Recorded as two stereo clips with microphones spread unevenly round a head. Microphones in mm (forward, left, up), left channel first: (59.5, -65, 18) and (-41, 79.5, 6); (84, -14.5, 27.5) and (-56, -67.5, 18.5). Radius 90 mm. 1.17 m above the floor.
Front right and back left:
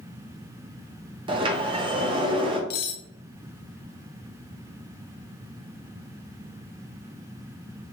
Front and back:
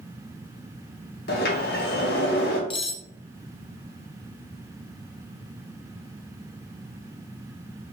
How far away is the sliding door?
About 0.8 m.